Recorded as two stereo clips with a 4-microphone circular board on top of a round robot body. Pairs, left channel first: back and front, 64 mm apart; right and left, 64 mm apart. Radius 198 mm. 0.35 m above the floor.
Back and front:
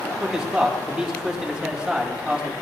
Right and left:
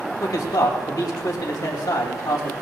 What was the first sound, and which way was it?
A man speaking, 75° right.